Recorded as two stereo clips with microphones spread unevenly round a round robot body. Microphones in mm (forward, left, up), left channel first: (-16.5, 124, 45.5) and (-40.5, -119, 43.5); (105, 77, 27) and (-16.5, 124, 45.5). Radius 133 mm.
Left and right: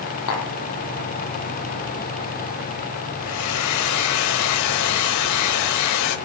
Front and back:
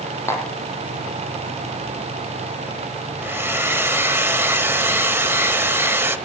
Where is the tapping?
50° left, 4 m.